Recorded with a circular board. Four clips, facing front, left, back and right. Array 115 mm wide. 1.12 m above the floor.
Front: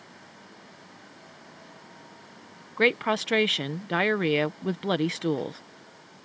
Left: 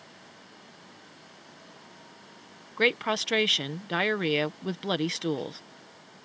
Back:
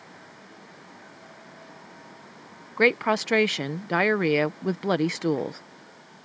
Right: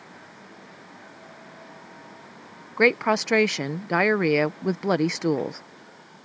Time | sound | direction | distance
2.8 | a woman speaking | 115° right | ?